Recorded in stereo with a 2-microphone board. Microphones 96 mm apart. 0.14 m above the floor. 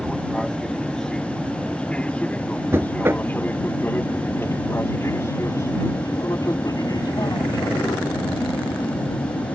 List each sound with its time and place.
0.0 s an aircraft: centre (ahead or behind); by 9.6 s 50° left (ahead or behind)
2.7 s knocking: 25° right (ahead or behind)